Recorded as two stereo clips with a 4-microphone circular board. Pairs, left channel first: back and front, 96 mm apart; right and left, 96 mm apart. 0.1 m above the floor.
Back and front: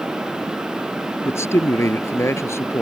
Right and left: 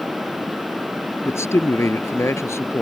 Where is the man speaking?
135° right.